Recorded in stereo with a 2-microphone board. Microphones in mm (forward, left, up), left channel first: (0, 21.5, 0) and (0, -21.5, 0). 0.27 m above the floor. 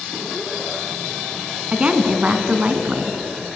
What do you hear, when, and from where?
1.7 s a woman speaking: 30° right (ahead or behind), 2.5 m